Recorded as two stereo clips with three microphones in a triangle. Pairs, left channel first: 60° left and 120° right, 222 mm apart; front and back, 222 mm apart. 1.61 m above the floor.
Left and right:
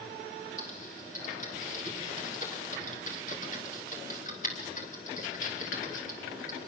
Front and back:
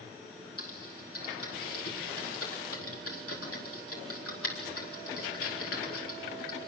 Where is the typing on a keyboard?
5° left, 4 m.